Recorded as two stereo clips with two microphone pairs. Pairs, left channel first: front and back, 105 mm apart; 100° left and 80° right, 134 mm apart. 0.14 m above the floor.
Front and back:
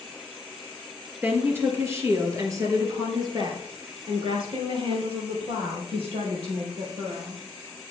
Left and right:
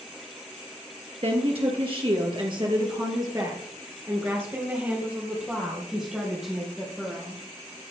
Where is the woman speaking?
110° right, 2.5 m; by 7.4 s 170° right, 4 m.